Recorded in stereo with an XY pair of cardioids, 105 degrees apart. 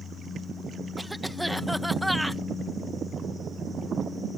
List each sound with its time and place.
1.0 s a cough: 5° right